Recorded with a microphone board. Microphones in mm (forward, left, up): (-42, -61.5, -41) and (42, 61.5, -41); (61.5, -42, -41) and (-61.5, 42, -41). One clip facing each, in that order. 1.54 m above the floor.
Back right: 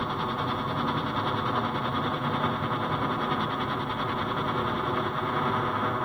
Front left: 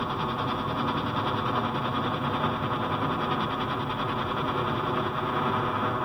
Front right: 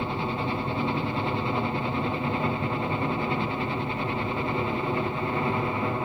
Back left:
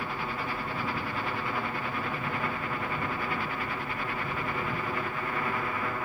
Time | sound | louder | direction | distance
0.0 | a helicopter | even, front right 6 dB | 30° right | ?